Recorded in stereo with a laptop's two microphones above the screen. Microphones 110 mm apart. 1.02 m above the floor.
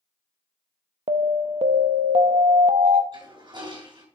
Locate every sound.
1.1 s an alarm: 70° right (ahead or behind), 0.7 m
3.1 s a toilet flushing: 45° right (ahead or behind), 3 m